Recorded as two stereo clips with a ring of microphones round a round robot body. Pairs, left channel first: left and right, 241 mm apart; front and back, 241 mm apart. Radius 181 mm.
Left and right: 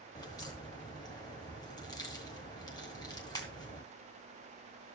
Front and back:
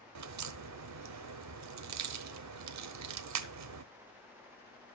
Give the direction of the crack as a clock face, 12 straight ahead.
6 o'clock.